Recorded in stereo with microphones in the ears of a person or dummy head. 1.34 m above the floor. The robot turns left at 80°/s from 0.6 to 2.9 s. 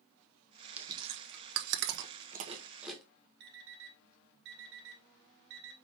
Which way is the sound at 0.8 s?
10° right (ahead or behind).